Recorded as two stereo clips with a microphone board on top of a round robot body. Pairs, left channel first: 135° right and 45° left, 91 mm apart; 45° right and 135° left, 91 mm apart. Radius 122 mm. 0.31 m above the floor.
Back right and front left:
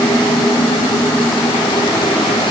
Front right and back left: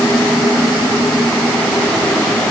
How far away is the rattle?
No rattle in this recording.